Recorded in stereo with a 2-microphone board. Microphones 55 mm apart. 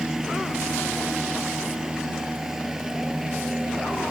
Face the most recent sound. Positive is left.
turn(degrees=-5)  # may be behind; listen again after turning